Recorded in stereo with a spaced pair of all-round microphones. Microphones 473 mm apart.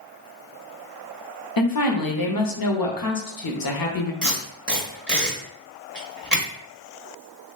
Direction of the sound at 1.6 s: 50° left (ahead or behind).